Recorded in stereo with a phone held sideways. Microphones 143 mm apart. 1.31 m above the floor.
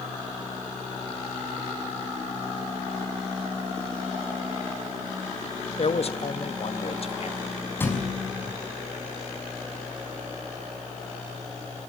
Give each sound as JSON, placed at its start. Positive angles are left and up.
{"t": 5.8, "sound": "a man speaking", "side_deg": 50, "distance_m": 1.5}
{"t": 7.8, "sound": "a thud", "side_deg": 15, "distance_m": 5.5}